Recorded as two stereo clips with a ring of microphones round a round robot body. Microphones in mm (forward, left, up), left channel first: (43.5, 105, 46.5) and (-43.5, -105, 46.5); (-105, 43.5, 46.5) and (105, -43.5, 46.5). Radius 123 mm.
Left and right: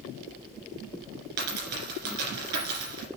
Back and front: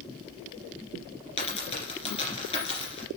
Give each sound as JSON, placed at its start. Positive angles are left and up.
{"t": 1.4, "sound": "a dropped coin", "azimuth_deg": -135, "distance_m": 4.0}